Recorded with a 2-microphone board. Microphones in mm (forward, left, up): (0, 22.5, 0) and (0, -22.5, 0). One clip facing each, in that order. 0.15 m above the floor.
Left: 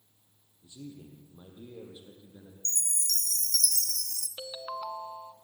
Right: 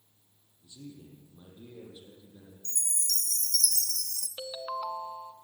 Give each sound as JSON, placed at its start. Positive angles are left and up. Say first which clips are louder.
{"t": 0.6, "sound": "a man speaking", "louder": "left 2 dB", "side_deg": 25, "distance_m": 5.0}
{"t": 2.6, "sound": "a chime", "louder": "left 2 dB", "side_deg": 70, "distance_m": 1.2}
{"t": 4.4, "sound": "a ringtone", "louder": "right 2 dB", "side_deg": -10, "distance_m": 0.6}